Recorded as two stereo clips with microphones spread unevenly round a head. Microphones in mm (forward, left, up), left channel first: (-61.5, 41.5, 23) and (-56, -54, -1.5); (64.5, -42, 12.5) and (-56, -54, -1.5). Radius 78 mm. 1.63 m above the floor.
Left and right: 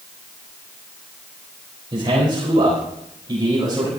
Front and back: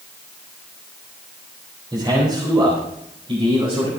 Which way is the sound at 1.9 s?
120° right.